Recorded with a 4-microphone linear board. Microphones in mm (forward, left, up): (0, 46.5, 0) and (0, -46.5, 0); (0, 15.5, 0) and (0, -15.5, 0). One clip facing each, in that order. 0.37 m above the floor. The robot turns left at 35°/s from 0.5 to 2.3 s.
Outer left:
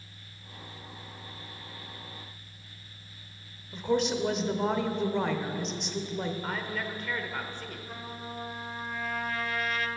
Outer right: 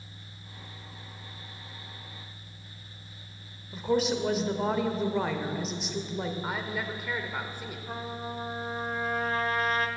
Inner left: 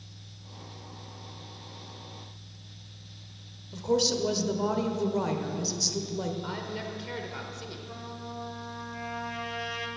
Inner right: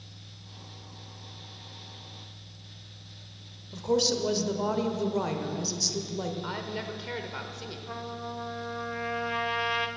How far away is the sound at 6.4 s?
About 0.9 m.